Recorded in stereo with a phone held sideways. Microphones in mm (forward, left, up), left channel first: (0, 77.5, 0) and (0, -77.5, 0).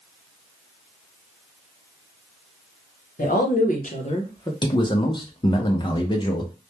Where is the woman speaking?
65° left (ahead or behind), 0.9 m; by 4.5 s 25° left (ahead or behind), 0.6 m.